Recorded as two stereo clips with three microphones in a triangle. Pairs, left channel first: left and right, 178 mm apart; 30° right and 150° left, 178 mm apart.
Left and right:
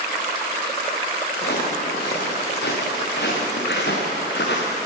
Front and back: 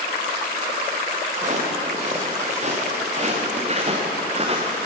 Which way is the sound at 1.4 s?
105° left.